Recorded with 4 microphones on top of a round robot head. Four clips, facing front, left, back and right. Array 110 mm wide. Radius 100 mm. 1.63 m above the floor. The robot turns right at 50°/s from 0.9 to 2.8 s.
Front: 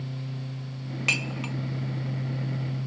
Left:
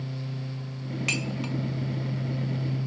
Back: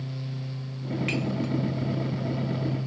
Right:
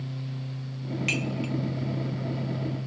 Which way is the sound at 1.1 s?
15° left.